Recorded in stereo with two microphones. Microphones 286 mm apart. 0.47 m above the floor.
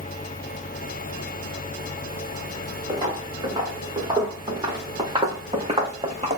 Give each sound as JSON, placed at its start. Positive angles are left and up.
{"t": 2.9, "sound": "footsteps", "side_deg": -15, "distance_m": 3.5}